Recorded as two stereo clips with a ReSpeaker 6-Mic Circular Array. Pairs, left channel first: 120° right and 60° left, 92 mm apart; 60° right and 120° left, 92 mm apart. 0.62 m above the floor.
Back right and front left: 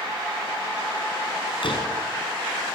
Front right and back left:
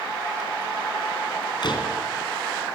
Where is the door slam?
95° right, 4 m.